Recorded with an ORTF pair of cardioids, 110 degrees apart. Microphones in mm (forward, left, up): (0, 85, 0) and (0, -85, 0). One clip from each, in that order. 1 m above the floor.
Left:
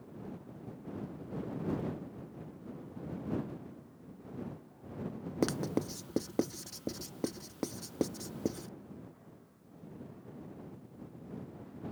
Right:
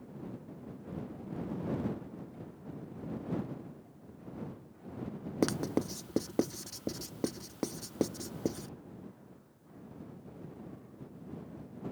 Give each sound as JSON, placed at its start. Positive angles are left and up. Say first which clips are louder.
{"t": 5.4, "sound": "writing", "louder": "right 1 dB", "azimuth_deg": -5}